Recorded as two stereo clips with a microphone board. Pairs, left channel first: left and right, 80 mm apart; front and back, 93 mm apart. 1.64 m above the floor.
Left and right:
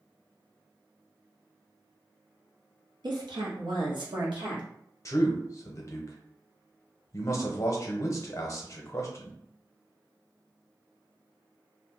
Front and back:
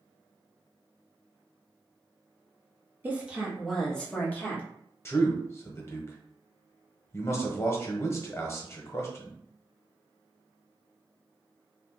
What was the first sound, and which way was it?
A woman speaking, 110° right.